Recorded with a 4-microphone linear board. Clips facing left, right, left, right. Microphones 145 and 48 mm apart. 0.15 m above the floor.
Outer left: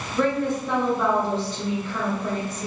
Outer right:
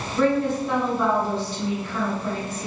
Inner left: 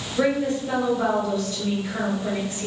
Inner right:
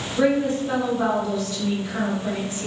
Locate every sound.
0.1 s a woman speaking: 10° right (ahead or behind), 1.7 m